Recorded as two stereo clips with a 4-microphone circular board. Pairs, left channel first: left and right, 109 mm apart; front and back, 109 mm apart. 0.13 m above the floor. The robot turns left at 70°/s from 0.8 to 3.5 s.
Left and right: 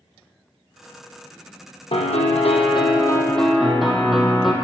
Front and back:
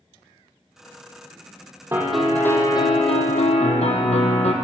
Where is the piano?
110° left, 1.0 m; by 4.5 s straight ahead, 1.0 m.